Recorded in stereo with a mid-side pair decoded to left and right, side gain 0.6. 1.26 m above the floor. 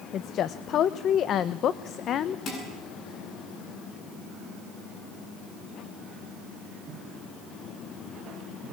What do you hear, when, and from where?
0.1 s a woman speaking: 50° left, 0.9 m
2.5 s dishes clattering: 50° left, 9.5 m